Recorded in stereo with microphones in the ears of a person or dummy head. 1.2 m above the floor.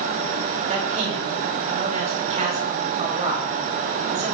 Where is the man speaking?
35° right (ahead or behind), 3 m.